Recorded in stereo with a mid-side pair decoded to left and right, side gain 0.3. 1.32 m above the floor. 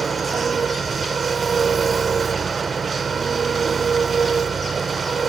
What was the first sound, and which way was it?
An engine running, 60° right.